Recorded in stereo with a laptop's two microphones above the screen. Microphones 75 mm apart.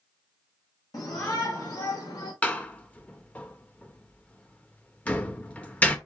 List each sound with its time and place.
0.9 s a shout: 60° left (ahead or behind), 1.2 m; by 2.3 s 65° left (ahead or behind), 3 m
2.4 s a door slam: 20° left (ahead or behind), 0.8 m